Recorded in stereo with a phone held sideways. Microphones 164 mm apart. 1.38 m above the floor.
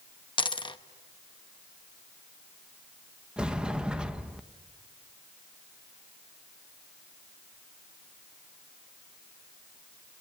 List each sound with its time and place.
0.4 s a dropped coin: 30° left (ahead or behind), 0.7 m
3.4 s a sliding door: 5° right (ahead or behind), 1.0 m